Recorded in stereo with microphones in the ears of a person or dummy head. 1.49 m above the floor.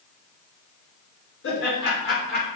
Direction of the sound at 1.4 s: 70° left (ahead or behind).